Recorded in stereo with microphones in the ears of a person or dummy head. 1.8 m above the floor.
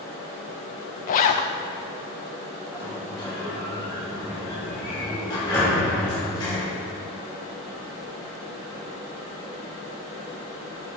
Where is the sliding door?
25° left (ahead or behind), 3.5 m.